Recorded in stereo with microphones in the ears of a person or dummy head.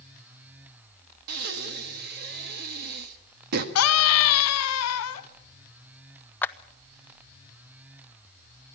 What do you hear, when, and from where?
1.3 s breathing: 55° right (ahead or behind), 1.6 m
3.8 s a scream: 80° left, 1.8 m
6.4 s a clap: 5° left (ahead or behind), 0.6 m